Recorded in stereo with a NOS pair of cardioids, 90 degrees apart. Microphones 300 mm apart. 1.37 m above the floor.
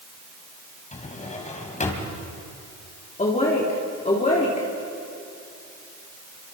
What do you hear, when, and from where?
0.9 s a drawer: 25° left, 3 m
3.2 s a woman speaking: 25° left, 3.5 m